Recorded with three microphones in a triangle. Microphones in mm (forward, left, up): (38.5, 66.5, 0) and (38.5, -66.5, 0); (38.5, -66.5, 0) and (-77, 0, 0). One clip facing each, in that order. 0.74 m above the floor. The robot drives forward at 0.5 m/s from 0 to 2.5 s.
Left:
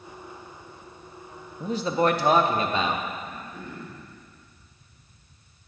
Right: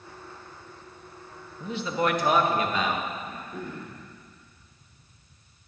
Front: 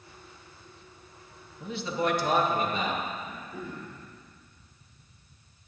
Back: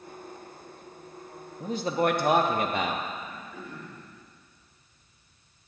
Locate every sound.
1.6 s a man speaking: 115° left, 0.6 m; by 3.1 s 150° left, 0.8 m
3.2 s throat clearing: 105° right, 2.5 m